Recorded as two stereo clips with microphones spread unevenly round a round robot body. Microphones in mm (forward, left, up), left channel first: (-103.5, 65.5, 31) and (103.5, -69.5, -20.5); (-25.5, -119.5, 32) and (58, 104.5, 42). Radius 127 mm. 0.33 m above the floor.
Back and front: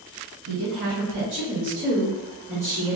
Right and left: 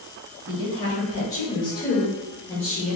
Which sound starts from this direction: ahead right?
A woman speaking, at 0.5 s.